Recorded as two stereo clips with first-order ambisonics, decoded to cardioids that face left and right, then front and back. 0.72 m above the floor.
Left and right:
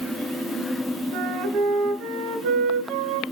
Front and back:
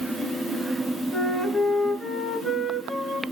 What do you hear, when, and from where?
1.1 s a flute: 95° right, 0.8 m